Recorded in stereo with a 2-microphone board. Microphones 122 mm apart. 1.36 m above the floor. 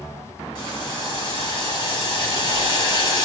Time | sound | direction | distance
0.6 | boiling | 40° left (ahead or behind) | 2.5 m